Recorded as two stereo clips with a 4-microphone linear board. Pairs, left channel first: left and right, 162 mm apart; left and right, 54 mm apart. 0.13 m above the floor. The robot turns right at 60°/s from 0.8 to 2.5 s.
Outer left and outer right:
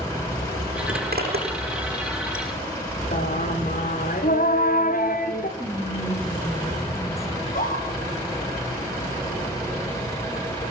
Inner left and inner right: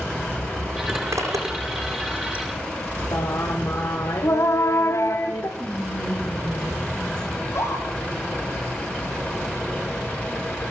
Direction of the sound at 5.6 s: 15° left (ahead or behind).